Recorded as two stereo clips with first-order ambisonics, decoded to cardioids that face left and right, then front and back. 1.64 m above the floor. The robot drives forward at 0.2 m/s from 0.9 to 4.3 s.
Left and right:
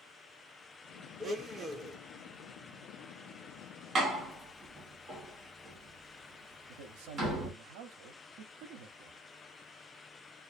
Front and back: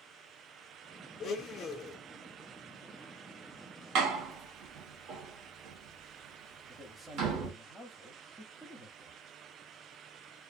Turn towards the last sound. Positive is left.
turn(degrees=-95)